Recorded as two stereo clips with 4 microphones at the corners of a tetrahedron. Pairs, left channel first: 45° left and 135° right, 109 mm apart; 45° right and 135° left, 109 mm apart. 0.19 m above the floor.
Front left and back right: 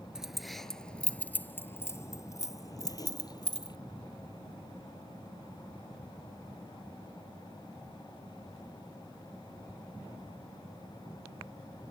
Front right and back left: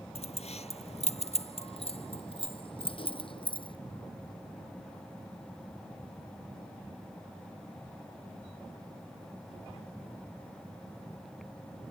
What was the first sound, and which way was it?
Keys jangling, 50° right.